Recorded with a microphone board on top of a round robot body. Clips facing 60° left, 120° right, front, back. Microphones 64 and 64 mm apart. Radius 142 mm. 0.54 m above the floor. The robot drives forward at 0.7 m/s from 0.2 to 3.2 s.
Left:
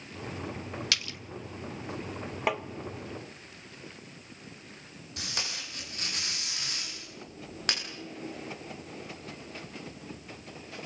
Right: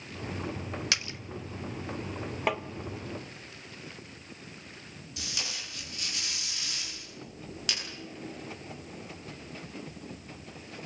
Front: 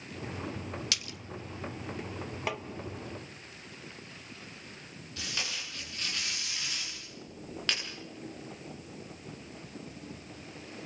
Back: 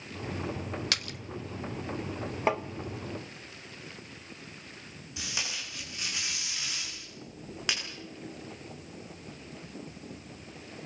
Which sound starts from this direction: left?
Tape being pulled, at 5.2 s.